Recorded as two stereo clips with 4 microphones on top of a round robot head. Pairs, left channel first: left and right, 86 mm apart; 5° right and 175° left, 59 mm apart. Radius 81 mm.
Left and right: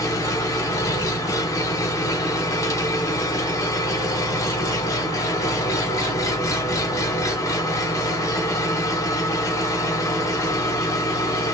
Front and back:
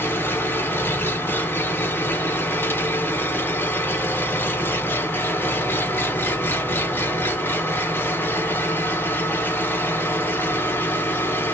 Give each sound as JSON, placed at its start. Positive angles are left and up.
{"t": 0.0, "sound": "an engine running", "azimuth_deg": 40, "distance_m": 1.5}